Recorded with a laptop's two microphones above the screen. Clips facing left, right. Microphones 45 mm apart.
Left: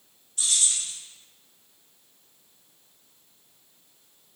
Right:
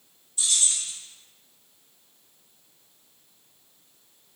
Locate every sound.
0.4 s keys jangling: 70° left (ahead or behind), 1.8 m